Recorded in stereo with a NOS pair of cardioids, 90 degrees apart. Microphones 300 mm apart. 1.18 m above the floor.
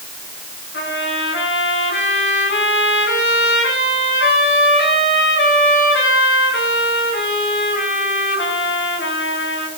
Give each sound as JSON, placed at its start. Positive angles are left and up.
{"t": 0.7, "sound": "a trumpet", "azimuth_deg": 35, "distance_m": 8.0}